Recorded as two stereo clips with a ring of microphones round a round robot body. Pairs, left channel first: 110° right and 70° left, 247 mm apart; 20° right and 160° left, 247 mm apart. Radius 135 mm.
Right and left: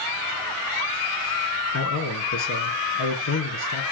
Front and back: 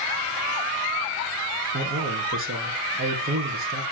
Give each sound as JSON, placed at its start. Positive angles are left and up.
{"t": 1.7, "sound": "a man speaking", "azimuth_deg": -150, "distance_m": 5.0}